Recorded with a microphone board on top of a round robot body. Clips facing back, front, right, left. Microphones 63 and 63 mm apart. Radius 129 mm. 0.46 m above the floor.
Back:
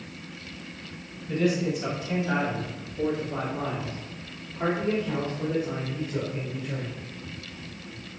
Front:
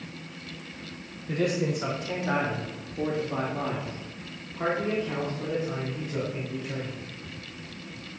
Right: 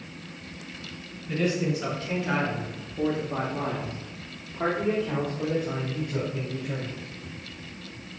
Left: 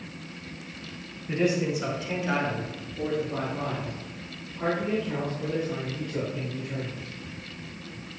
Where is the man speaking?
30° left, 2.5 m; by 7.0 s 95° right, 5 m.